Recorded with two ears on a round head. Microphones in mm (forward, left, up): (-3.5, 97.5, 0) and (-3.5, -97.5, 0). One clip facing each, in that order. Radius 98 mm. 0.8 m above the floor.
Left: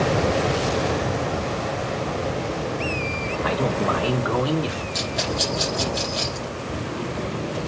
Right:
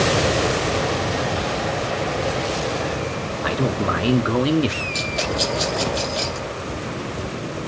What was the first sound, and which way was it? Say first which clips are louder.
A man speaking: right 1 dB; 15° right (ahead or behind).